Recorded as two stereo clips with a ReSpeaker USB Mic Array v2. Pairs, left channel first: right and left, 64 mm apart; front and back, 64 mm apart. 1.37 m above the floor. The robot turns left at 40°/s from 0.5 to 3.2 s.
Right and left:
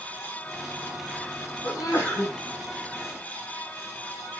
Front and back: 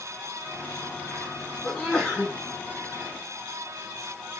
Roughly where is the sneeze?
Right.